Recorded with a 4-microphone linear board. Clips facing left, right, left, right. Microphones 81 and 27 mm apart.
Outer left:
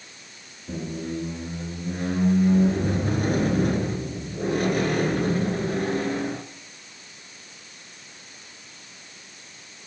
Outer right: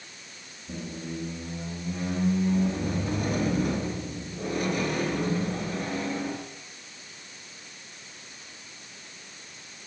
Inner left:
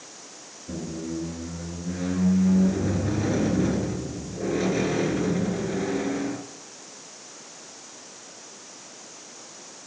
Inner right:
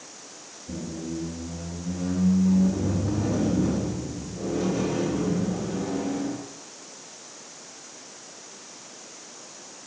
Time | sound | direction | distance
0.7 | a squeak | 55° left (ahead or behind) | 0.8 m